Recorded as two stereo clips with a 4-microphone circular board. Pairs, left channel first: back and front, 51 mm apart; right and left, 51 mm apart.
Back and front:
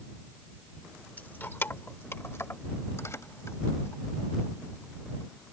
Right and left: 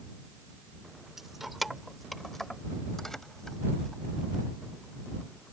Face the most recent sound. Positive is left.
turn(degrees=-170)